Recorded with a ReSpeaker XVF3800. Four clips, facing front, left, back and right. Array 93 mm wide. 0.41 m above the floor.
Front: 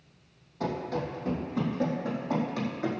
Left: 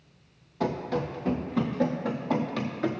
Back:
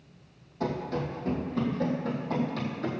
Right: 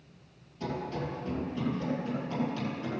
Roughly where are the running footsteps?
Left.